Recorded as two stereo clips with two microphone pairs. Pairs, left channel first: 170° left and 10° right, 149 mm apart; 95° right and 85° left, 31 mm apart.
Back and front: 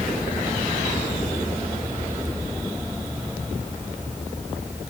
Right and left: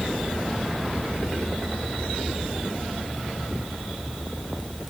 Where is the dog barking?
No dog barking in this recording.